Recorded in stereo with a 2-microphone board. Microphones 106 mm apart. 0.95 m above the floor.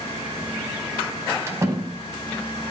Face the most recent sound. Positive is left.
turn(degrees=-30)  # may be behind; listen again after turning